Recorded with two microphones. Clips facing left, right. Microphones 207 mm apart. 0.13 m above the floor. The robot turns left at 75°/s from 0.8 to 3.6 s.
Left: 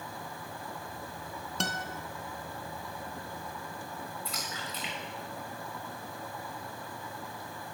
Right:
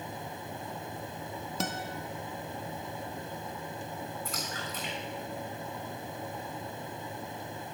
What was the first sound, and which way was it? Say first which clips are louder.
A guitar: right 1 dB; 5° right (ahead or behind).